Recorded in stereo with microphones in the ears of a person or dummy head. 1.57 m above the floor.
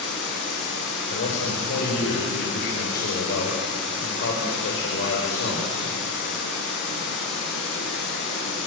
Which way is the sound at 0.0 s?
65° left (ahead or behind).